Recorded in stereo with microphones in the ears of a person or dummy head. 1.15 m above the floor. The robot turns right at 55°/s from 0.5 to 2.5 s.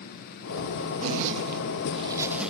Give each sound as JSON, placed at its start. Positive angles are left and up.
{"t": 1.0, "sound": "a zipper", "side_deg": -75, "distance_m": 1.4}